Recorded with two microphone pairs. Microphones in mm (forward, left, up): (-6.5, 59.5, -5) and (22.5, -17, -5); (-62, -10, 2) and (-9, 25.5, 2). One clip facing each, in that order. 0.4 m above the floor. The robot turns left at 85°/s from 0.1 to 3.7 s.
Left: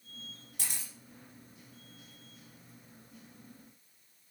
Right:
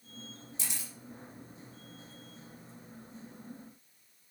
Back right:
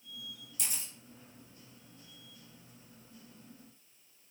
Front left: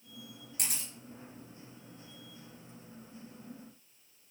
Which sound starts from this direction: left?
A camera shutter, at 0.6 s.